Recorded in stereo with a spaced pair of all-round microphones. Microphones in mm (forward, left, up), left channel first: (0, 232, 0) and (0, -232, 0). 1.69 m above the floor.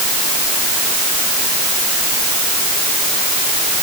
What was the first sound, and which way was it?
Only background noise.